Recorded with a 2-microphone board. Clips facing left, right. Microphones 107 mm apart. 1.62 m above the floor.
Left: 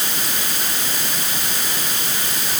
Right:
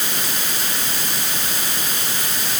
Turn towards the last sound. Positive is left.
No sound to turn to.